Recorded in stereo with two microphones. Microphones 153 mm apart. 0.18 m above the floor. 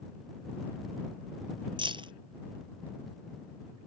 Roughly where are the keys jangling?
Right.